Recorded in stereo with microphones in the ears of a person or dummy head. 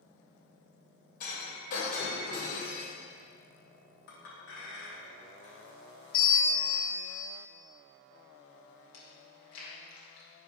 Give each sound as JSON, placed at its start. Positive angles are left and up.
{"t": 1.2, "sound": "breaking glass", "side_deg": 50, "distance_m": 3.0}
{"t": 4.1, "sound": "a clink", "side_deg": 65, "distance_m": 1.8}
{"t": 6.1, "sound": "a bell", "side_deg": 70, "distance_m": 1.8}
{"t": 8.9, "sound": "chewing", "side_deg": 85, "distance_m": 2.5}